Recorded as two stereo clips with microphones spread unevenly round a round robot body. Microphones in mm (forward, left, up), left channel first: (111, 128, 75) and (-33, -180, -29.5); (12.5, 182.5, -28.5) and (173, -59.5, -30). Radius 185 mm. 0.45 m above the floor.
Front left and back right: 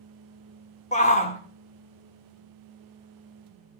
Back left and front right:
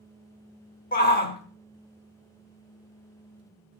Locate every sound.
0.9 s a shout: 150° left, 1.1 m